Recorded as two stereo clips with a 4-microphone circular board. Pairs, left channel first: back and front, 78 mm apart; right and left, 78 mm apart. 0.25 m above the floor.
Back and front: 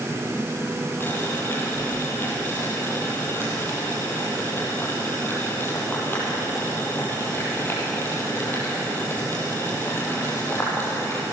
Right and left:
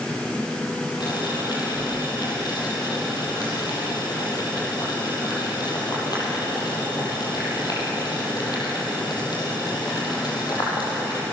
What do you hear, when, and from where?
1.0 s boiling: 120° right, 6 m